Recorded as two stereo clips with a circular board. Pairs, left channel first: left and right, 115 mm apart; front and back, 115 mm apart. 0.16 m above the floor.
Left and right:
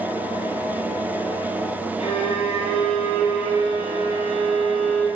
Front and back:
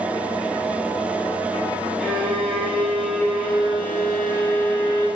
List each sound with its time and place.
2.0 s a violin: 90° left, 3.5 m